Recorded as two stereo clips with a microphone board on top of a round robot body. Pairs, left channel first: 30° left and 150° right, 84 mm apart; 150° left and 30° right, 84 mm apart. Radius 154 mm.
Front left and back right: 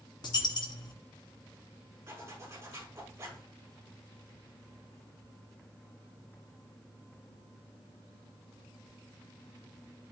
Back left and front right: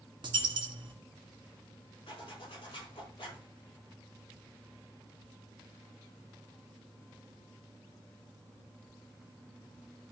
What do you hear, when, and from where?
0.2 s a dropped coin: 5° right, 2 m
2.1 s a zipper: 155° left, 5.5 m